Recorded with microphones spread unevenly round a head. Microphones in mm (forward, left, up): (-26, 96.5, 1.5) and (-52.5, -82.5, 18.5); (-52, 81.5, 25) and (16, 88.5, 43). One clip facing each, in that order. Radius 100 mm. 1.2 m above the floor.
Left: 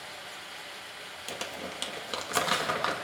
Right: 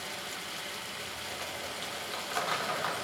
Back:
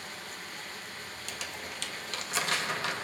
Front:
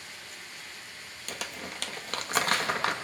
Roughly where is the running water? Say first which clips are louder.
Right 3 dB, back 3 dB; behind right.